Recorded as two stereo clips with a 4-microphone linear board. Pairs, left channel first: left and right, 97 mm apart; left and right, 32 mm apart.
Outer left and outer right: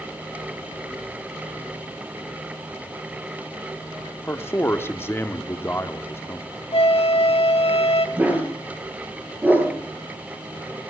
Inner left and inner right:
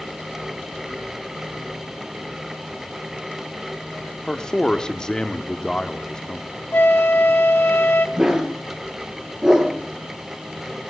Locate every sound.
4.3 s a man speaking: 25° left (ahead or behind), 0.9 m
6.7 s a flute: 85° left, 0.9 m
8.2 s a dog barking: 15° right (ahead or behind), 3.5 m